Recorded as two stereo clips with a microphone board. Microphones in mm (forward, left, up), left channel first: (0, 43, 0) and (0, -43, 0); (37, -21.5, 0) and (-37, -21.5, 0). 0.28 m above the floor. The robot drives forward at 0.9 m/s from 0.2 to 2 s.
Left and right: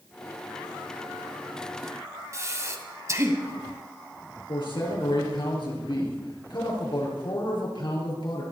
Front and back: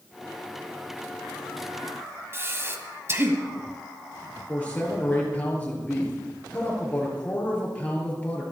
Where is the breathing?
135° right, 1.8 m.